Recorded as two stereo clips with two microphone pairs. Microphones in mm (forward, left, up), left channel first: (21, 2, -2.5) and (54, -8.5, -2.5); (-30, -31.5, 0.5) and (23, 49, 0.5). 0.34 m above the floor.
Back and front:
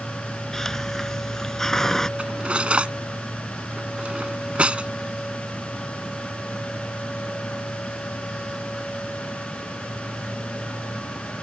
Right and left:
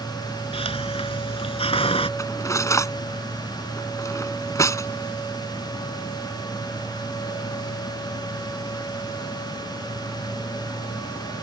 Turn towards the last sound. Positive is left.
turn(degrees=-70)